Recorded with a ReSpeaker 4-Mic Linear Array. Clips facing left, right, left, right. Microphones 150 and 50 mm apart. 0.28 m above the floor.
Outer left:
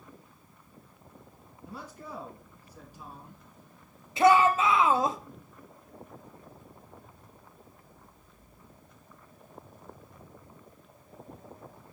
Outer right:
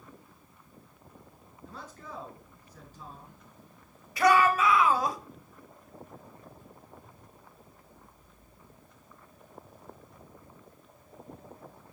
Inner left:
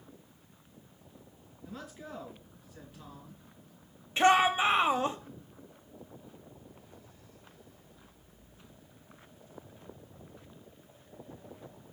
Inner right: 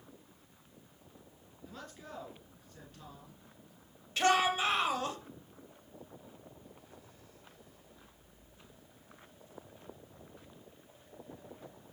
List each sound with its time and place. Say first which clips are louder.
1.6 s a man speaking: outer left 2 dB, inner left 4 dB; 10° left (ahead or behind), 3 m
4.2 s a shout: outer left 2 dB, inner left 5 dB; 25° left (ahead or behind), 1.0 m